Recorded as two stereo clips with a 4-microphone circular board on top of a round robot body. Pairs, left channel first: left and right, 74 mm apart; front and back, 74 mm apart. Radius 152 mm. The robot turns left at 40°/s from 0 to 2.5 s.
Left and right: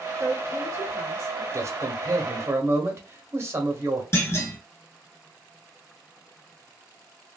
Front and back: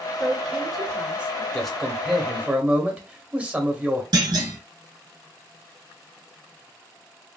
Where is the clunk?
145° left, 0.7 m.